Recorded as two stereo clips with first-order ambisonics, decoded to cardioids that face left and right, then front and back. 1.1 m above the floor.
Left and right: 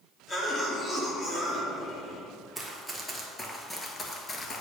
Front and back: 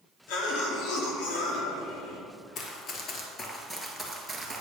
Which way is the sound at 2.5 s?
5° right.